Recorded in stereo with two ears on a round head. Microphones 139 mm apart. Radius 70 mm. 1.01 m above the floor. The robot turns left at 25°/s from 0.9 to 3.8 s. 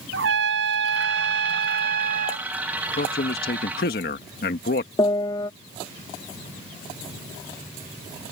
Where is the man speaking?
65° left (ahead or behind).